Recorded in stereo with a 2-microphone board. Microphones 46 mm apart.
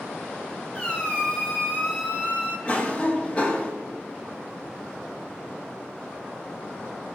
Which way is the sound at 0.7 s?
25° left (ahead or behind).